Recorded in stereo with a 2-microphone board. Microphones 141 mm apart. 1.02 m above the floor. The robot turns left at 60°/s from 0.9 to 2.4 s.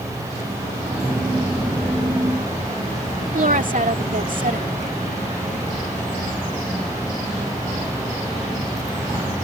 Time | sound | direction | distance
3.3 | a woman speaking | 70° right (ahead or behind) | ?